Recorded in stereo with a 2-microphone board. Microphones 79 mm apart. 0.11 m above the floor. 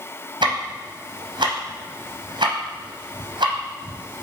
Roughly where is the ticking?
Right.